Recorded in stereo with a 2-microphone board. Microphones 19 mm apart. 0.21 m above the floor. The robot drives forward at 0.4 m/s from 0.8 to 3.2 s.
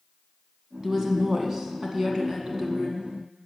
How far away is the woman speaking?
About 1.8 m.